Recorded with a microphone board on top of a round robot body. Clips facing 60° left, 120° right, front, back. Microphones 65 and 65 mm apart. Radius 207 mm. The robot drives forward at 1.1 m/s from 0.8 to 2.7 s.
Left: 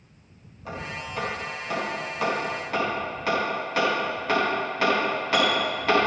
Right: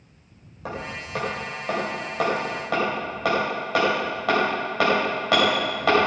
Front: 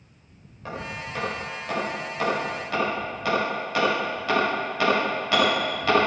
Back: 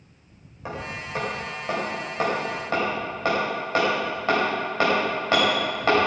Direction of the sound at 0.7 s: 105° right.